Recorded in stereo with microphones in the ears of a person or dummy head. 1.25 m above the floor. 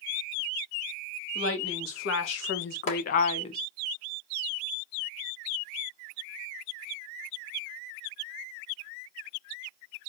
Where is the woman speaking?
90° left, 1.4 m; by 3.6 s 30° left (ahead or behind), 0.7 m.